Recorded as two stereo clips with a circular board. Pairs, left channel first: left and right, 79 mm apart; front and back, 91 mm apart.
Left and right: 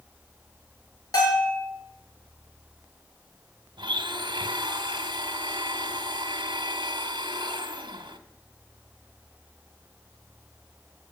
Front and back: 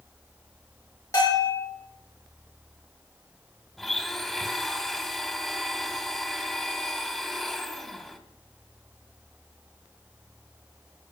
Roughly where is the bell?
Ahead left.